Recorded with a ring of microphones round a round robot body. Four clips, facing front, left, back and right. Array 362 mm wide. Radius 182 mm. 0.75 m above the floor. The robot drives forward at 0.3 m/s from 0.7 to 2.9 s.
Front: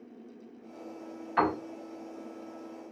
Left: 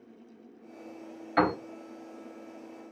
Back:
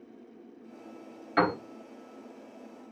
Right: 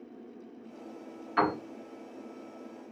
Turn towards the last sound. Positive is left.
turn(degrees=145)